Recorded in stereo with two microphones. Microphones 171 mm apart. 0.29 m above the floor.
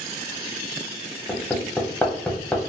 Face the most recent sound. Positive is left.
turn(degrees=10)  # may be behind; listen again after turning